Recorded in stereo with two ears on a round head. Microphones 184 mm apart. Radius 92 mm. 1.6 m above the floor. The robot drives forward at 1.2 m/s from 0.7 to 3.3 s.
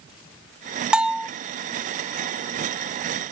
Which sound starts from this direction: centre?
A bell, at 0.9 s.